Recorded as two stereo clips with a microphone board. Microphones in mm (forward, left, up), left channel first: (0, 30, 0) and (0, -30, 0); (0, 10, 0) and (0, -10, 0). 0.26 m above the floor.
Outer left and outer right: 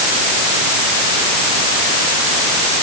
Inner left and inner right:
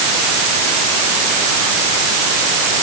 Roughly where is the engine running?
No engine running in this recording.